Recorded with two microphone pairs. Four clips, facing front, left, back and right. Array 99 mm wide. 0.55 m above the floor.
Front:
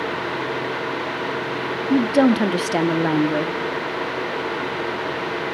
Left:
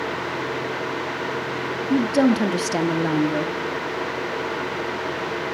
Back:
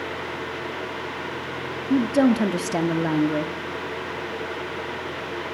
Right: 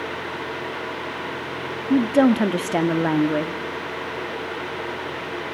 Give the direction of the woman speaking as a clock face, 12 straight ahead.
2 o'clock.